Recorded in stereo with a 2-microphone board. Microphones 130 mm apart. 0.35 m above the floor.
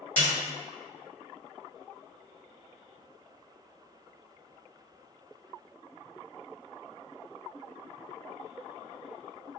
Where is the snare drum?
15° left (ahead or behind), 1.3 m.